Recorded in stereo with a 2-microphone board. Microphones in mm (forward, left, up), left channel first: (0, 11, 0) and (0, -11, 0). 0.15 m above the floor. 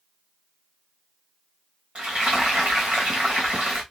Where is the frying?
65° right (ahead or behind), 3 m.